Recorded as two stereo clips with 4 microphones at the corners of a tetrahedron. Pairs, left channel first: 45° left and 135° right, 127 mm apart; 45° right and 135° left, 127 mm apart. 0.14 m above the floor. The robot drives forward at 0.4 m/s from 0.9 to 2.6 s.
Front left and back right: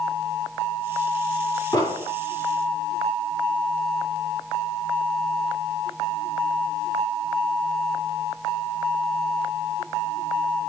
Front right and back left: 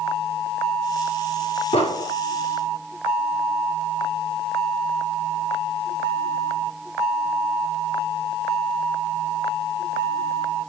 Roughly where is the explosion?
Ahead.